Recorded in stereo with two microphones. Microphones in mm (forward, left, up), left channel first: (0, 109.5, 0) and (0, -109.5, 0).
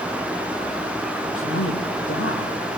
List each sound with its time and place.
1.4 s a man speaking: 80° left, 8.5 m